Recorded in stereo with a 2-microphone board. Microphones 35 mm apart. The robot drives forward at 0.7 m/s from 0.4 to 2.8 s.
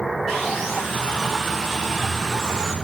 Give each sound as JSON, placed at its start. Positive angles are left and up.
{"t": 0.3, "sound": "sawing", "side_deg": 5, "distance_m": 7.5}